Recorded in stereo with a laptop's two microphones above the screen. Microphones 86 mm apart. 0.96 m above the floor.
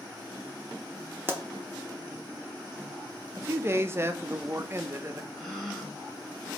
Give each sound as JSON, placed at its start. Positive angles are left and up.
{"t": 1.3, "sound": "a pop", "side_deg": -30, "distance_m": 0.6}
{"t": 3.4, "sound": "a man speaking", "side_deg": -30, "distance_m": 0.6}
{"t": 5.3, "sound": "a gasp", "side_deg": 0, "distance_m": 1.2}